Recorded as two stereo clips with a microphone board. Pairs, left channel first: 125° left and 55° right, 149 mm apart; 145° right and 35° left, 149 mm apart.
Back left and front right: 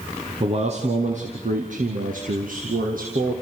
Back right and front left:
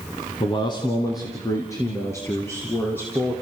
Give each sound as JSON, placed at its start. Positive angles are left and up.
{"t": 0.4, "sound": "a man speaking", "azimuth_deg": -95, "distance_m": 1.9}